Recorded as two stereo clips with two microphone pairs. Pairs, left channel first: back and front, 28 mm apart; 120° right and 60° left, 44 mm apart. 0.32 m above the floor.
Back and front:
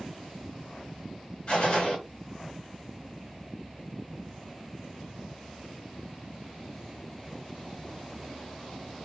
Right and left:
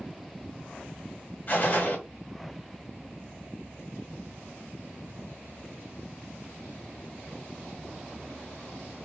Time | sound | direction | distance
1.5 | a gunshot | 145° right | 1.9 m